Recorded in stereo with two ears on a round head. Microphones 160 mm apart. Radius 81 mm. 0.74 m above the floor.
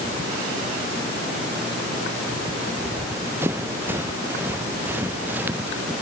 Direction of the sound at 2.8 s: 15° right (ahead or behind).